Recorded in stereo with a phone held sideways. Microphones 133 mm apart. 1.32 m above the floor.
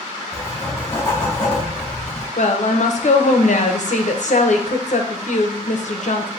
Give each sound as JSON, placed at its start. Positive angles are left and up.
{"t": 0.3, "sound": "writing", "side_deg": 25, "distance_m": 1.9}
{"t": 2.4, "sound": "a woman speaking", "side_deg": 65, "distance_m": 0.7}